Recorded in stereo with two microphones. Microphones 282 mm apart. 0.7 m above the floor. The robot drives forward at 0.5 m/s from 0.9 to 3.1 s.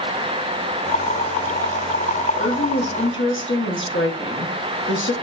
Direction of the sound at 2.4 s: 40° left (ahead or behind).